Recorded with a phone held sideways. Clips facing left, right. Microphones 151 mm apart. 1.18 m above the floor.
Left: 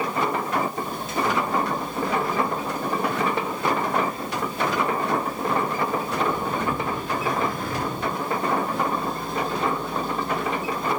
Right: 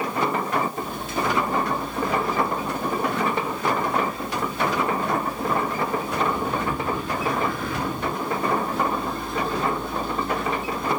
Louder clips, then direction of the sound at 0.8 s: Left 1 dB; 40° left (ahead or behind).